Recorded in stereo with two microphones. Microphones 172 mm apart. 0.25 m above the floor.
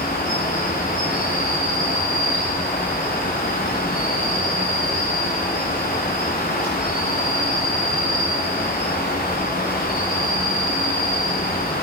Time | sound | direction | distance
0.0 | an insect | 45° left (ahead or behind) | 4.5 m